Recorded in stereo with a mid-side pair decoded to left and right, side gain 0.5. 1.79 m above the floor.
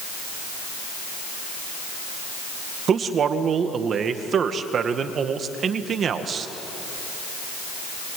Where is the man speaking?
50° right, 2 m.